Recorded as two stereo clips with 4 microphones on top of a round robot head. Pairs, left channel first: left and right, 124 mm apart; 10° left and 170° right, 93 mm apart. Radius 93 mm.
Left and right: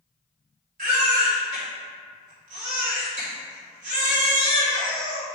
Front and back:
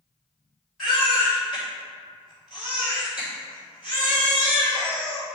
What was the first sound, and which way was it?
A baby crying, 80° right.